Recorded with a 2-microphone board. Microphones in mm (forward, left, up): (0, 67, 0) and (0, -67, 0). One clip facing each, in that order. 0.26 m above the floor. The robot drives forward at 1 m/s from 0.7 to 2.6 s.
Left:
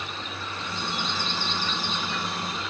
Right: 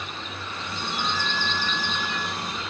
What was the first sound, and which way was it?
A flute, 80° right.